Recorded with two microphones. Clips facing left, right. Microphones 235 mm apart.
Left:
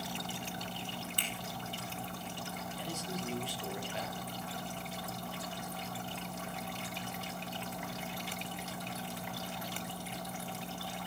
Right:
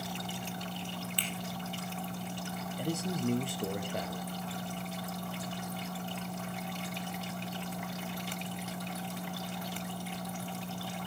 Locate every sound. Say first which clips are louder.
1.2 s a finger snap: right 3 dB; 45° left (ahead or behind), 4 m
2.8 s a man speaking: right 9 dB; 55° right (ahead or behind), 2.5 m